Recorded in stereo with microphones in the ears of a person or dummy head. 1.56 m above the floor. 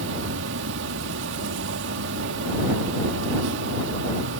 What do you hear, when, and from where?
0.0 s an insect: 70° right (ahead or behind)